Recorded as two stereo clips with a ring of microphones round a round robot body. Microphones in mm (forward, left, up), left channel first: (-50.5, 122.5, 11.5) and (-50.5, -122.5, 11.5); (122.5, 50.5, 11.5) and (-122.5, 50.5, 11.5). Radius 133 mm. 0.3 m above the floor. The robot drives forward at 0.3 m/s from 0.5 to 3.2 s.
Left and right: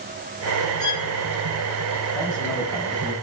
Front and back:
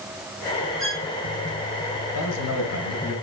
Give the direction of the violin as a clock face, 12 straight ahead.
9 o'clock.